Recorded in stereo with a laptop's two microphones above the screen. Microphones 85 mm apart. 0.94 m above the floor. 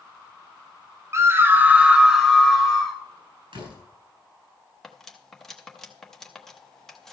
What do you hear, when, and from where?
1.1 s a scream: 30° right (ahead or behind), 0.6 m; by 3.0 s 5° left (ahead or behind), 1.2 m
3.5 s a door slam: 80° right, 4.5 m
4.8 s cutlery clinking: 5° left (ahead or behind), 0.9 m